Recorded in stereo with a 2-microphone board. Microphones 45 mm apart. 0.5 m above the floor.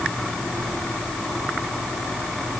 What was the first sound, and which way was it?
Only background noise.